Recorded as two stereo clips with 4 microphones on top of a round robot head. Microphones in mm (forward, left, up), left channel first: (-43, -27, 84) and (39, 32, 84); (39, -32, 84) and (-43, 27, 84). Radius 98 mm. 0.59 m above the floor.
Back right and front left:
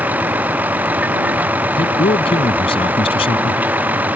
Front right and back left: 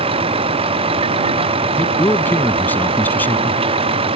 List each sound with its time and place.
0.0 s a vehicle: 110° left
1.8 s a man speaking: 110° right